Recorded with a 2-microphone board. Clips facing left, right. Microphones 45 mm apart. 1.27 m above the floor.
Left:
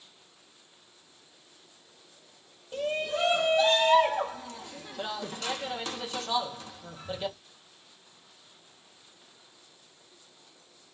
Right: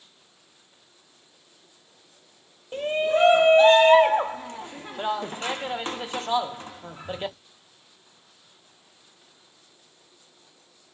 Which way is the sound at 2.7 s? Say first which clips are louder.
Right 7 dB; 35° right (ahead or behind).